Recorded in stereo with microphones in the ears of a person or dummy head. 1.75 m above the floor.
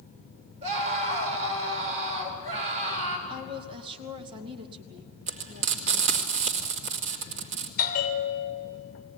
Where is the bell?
45° left (ahead or behind), 2.5 m.